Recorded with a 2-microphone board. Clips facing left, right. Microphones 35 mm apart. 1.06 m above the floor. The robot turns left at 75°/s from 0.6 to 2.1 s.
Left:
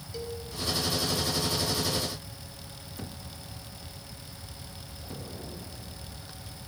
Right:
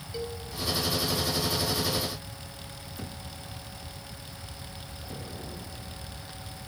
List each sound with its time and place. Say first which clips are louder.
0.1 s a cowbell: right 1 dB; 30° right (ahead or behind), 4 m